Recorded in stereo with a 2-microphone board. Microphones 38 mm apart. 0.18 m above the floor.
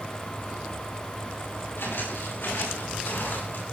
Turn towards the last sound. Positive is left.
turn(degrees=60)  # may be behind; listen again after turning